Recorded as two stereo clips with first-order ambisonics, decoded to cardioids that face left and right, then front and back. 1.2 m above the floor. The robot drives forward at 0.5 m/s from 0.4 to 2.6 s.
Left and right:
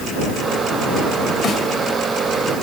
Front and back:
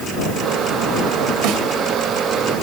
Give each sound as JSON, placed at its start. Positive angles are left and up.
{"t": 1.4, "sound": "a snare drum", "azimuth_deg": 175, "distance_m": 1.9}